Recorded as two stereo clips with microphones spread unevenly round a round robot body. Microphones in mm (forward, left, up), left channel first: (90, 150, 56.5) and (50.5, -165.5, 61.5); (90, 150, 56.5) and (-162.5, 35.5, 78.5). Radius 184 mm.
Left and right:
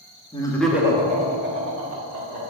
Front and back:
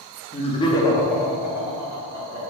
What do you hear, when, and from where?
0.3 s laughter: 30° left, 0.8 m; by 2.4 s 85° right, 1.2 m